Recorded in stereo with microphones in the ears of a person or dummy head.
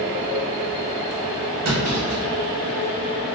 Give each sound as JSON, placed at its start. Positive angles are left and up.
{"t": 1.6, "sound": "a clunk", "side_deg": -60, "distance_m": 1.5}